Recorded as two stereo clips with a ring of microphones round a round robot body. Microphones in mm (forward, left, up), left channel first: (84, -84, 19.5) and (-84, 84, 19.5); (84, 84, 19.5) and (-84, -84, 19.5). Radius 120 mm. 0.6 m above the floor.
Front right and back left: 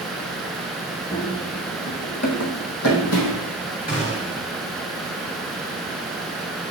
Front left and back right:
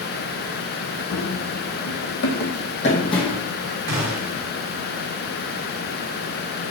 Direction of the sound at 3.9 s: 110° right.